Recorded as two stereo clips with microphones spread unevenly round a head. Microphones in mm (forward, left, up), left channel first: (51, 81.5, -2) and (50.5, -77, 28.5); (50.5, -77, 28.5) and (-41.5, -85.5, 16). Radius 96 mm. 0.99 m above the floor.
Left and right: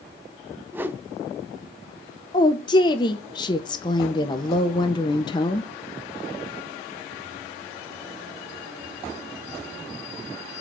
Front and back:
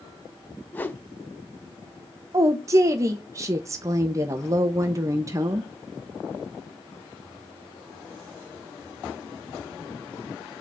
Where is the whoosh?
35° right, 0.6 m.